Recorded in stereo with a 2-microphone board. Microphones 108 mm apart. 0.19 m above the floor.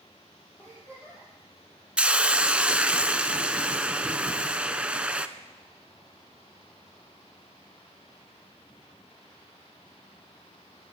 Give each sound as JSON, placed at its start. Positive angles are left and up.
{"t": 0.6, "sound": "a giggle", "side_deg": 15, "distance_m": 7.5}
{"t": 2.0, "sound": "a hiss", "side_deg": -10, "distance_m": 0.5}